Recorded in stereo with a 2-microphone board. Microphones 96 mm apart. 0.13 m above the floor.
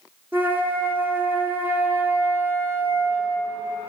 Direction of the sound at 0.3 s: 20° right (ahead or behind).